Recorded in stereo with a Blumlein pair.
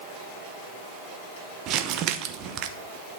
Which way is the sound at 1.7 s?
35° right.